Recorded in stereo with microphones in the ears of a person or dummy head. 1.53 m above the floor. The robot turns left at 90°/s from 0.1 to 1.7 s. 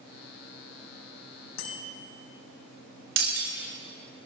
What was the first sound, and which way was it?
A bicycle bell, 80° left.